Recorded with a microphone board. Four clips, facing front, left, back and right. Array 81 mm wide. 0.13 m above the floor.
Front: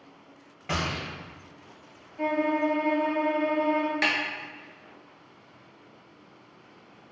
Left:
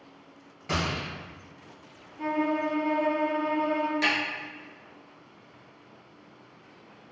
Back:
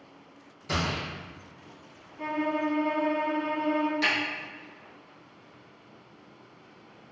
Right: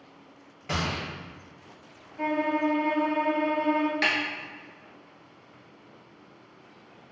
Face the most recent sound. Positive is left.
turn(degrees=-30)